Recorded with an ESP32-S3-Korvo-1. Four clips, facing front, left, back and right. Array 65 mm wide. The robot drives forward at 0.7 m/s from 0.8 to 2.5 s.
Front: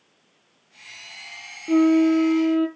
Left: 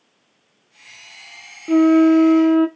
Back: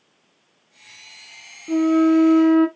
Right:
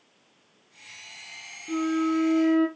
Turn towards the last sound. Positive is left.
turn(degrees=135)